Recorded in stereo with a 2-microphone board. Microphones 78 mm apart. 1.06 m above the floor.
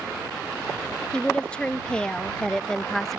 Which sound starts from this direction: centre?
A woman speaking, at 1.1 s.